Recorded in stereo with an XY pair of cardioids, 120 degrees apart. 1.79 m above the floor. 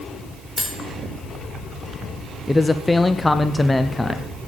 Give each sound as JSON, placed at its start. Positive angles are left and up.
{"t": 0.6, "sound": "cutlery clinking", "azimuth_deg": 5, "distance_m": 4.0}
{"t": 2.5, "sound": "a man speaking", "azimuth_deg": 10, "distance_m": 0.6}